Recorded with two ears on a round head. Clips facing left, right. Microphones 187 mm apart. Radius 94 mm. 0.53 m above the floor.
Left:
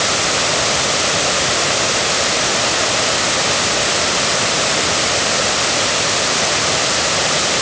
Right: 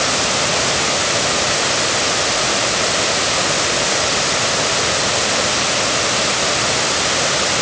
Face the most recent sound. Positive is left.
No sound to turn to.